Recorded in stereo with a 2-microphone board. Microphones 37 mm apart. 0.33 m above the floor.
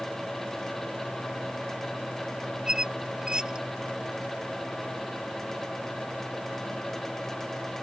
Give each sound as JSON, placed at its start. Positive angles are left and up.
{"t": 2.7, "sound": "a squeak", "side_deg": -20}